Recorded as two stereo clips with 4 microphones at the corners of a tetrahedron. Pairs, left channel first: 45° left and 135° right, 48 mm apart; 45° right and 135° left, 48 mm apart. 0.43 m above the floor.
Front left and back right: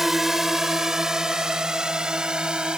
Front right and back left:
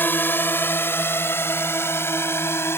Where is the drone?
55° right; by 2.8 s 65° right.